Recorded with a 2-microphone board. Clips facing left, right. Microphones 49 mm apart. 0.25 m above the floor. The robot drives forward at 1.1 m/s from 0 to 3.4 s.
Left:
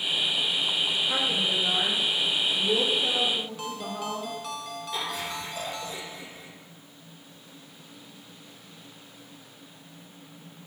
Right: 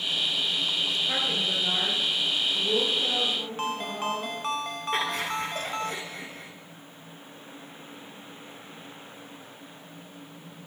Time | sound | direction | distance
1.1 | a woman speaking | 25° right (ahead or behind) | 4 m
3.6 | a ringtone | 40° right (ahead or behind) | 0.8 m
4.9 | laughter | 55° right (ahead or behind) | 3.5 m